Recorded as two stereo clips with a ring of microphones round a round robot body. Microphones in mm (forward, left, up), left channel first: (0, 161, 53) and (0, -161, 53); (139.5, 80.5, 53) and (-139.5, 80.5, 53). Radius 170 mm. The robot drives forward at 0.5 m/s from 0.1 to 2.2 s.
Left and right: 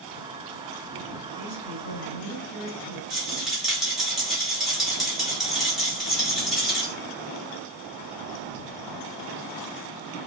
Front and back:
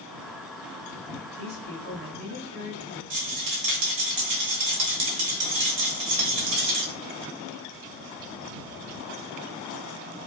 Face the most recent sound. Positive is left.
turn(degrees=180)